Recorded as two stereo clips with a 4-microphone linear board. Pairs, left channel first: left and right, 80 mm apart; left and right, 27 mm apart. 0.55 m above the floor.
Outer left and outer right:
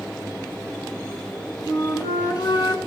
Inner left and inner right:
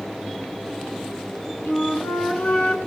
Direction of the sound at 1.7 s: 55° left (ahead or behind).